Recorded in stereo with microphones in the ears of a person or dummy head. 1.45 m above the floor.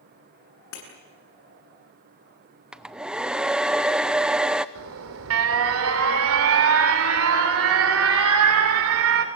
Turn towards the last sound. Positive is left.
turn(degrees=-75)  # may be behind; listen again after turning